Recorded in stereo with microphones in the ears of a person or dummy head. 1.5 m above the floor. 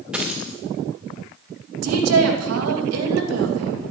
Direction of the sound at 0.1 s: Centre (ahead or behind).